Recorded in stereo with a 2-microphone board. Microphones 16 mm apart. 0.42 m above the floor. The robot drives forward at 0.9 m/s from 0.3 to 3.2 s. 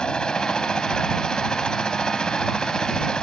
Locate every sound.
0.0 s a helicopter: 60° left (ahead or behind)